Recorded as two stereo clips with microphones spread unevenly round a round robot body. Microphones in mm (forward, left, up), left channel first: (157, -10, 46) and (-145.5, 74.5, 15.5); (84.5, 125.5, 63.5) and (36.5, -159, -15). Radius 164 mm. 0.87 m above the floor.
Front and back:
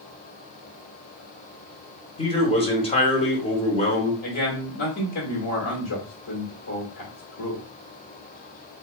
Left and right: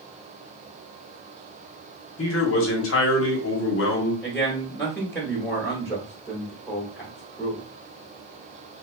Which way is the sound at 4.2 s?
20° right.